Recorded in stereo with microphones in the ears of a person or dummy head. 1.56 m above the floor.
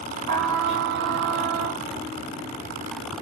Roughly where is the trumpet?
Right.